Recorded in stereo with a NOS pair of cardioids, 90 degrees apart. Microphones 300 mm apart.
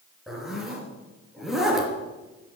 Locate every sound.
0.3 s a zipper: straight ahead, 3.5 m